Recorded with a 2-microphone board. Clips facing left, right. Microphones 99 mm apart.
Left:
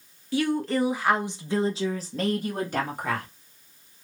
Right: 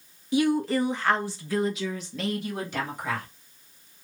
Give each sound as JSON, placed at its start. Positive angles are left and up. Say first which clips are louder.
{"t": 0.3, "sound": "a woman speaking", "louder": "right 2 dB", "side_deg": -20, "distance_m": 0.7}